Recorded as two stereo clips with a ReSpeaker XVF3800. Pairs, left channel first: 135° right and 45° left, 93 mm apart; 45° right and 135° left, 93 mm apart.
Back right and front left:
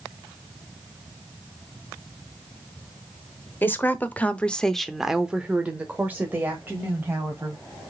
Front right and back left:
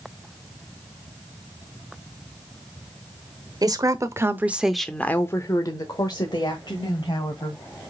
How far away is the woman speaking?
About 1.2 m.